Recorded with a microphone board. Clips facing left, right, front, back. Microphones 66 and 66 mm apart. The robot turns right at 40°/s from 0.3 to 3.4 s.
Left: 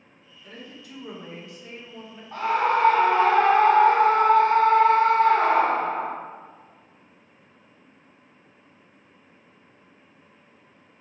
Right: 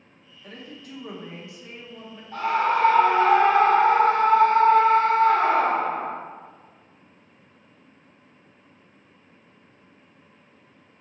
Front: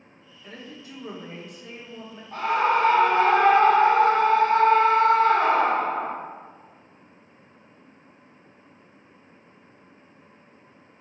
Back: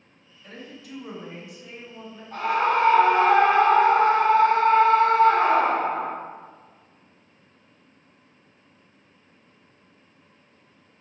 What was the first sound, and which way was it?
A woman speaking, 70° right.